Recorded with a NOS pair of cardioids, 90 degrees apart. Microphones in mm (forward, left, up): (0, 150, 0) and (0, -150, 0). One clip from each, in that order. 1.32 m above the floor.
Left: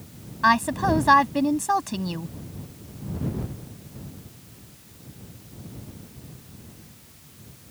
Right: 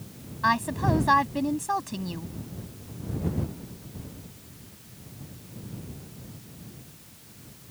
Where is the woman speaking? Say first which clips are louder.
Left 5 dB; 35° left.